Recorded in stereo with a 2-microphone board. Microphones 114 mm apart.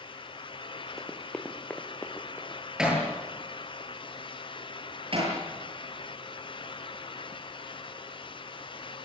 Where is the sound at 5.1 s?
55° right (ahead or behind), 9 m.